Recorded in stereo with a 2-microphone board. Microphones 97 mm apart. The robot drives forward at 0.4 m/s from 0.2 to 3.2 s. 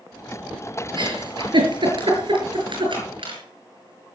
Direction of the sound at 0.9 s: 55° right (ahead or behind).